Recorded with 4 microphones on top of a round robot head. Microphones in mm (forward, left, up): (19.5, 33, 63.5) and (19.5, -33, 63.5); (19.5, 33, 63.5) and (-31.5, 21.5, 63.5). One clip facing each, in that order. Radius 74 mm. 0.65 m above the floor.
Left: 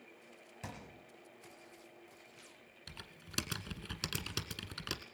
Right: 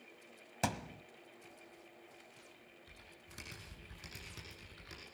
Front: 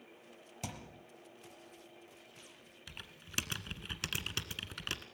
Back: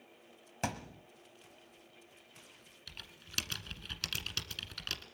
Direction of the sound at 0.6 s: 115° right.